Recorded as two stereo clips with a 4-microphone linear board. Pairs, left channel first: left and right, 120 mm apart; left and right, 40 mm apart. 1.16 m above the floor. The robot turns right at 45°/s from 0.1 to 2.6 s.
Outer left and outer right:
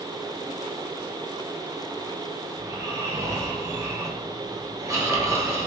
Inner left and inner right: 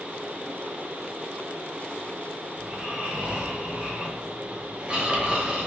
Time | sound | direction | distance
2.6 | snoring | 20° right (ahead or behind) | 0.7 m